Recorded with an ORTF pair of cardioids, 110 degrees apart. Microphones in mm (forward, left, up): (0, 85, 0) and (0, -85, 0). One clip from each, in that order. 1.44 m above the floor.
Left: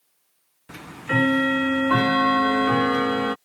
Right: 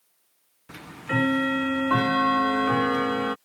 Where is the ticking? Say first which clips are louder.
Left 4 dB; 15° left.